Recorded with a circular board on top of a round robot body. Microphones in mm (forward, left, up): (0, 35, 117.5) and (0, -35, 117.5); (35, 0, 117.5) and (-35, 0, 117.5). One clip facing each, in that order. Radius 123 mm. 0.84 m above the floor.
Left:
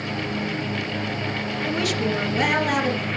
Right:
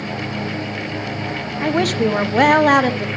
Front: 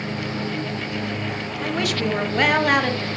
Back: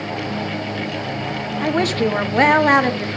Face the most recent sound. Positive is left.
turn(degrees=-115)